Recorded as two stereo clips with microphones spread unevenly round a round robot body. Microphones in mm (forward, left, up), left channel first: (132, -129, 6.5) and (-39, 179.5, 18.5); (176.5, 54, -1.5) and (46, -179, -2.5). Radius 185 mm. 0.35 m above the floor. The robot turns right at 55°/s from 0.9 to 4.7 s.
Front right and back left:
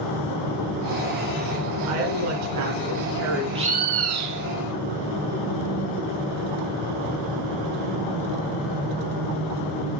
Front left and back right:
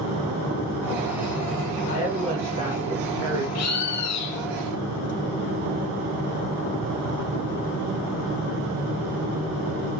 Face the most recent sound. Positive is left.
turn(degrees=105)